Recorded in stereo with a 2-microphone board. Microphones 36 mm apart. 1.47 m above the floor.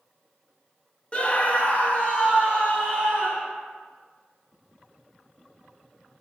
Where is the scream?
30° left (ahead or behind), 0.5 m; by 3.5 s 45° left (ahead or behind), 2.5 m.